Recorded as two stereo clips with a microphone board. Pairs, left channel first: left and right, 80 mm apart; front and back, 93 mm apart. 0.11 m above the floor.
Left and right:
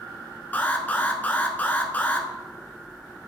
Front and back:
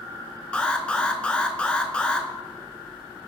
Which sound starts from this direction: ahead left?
An alarm, at 0.5 s.